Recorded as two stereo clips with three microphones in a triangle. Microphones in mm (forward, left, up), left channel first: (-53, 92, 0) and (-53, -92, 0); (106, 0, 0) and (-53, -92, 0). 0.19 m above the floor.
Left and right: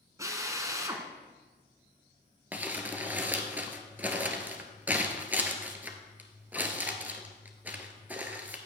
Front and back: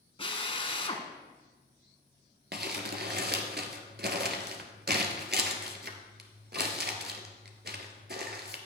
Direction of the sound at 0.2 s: 25° right.